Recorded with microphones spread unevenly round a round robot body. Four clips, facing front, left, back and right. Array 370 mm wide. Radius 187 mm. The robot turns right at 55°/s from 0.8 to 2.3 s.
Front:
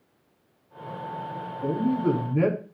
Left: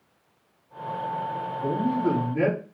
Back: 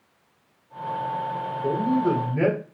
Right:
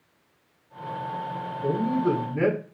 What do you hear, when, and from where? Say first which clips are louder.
1.6 s a man speaking: right 1 dB, back 1 dB; 15° right, 5.5 m; by 2.6 s 20° left, 5.5 m